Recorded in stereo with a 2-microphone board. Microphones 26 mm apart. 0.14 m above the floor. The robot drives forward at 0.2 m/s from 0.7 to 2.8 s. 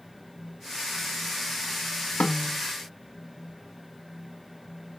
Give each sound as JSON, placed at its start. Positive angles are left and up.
{"t": 2.2, "sound": "a snare drum", "side_deg": 75, "distance_m": 1.2}